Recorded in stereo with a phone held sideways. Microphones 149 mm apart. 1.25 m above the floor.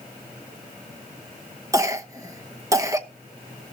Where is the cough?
20° right (ahead or behind), 0.9 m.